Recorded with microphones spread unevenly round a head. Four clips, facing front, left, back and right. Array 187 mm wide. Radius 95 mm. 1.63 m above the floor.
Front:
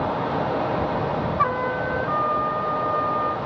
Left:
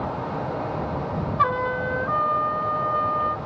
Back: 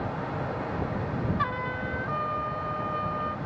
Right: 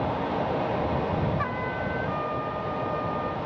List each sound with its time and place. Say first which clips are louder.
1.4 s a trumpet: left 7 dB, front 8 dB; 55° left